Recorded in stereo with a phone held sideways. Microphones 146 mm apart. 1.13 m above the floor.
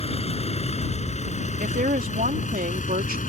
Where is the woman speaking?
75° right (ahead or behind).